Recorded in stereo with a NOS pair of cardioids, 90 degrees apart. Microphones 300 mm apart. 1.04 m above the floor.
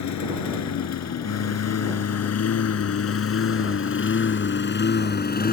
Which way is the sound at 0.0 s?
70° left.